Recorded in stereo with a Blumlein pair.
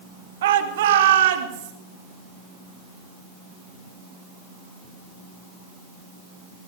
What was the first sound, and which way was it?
A shout, 60° right.